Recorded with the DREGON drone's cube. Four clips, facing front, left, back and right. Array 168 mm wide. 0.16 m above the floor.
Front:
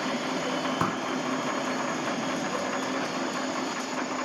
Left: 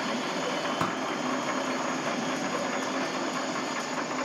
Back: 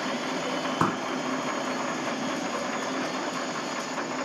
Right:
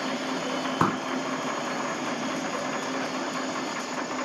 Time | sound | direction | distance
0.8 | a pop | 120° right | ?